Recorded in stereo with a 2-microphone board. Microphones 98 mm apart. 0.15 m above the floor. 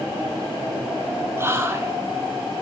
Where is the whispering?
25° right (ahead or behind), 1.5 m.